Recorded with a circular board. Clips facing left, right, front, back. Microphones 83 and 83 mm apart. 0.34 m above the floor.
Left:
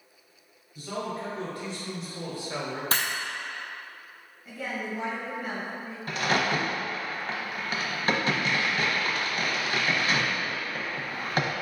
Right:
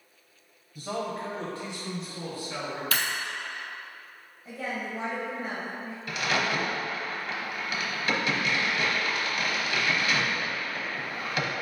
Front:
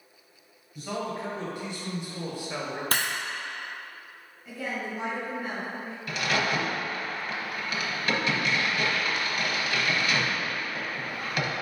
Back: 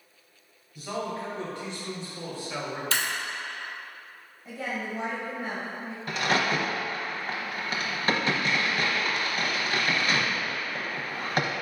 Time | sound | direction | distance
0.8 | a man speaking | 80° right | 1.4 m
2.9 | breaking glass | 35° left | 0.7 m
4.5 | a woman speaking | 145° right | 1.5 m
6.1 | a crack | 135° left | 0.8 m